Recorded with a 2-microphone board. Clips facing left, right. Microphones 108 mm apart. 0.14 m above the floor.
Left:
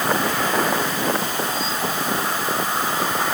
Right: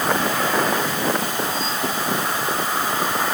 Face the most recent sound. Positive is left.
No sound to turn to.